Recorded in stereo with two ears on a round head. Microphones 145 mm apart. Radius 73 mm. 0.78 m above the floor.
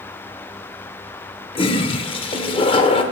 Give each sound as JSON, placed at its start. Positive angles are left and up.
{"t": 1.6, "sound": "a toilet flushing", "side_deg": 35, "distance_m": 0.5}